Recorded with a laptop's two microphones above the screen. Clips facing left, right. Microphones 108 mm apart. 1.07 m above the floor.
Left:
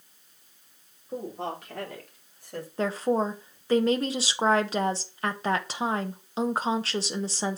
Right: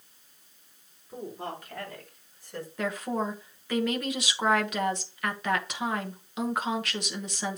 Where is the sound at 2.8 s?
30° left (ahead or behind), 0.9 m.